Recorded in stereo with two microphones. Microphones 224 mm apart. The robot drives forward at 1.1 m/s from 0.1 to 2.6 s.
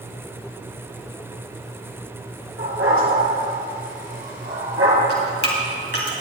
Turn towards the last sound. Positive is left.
turn(degrees=55)  # may be behind; listen again after turning